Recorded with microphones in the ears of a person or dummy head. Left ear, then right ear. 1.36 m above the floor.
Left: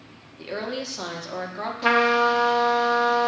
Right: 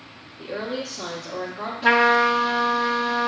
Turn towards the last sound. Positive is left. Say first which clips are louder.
# right 2 dB
turn(degrees=20)  # may be behind; listen again after turning